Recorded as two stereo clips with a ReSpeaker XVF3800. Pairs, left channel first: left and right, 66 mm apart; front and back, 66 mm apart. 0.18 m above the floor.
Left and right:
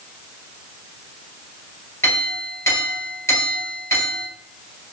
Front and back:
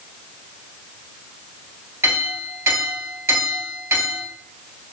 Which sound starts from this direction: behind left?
A clink, at 2.0 s.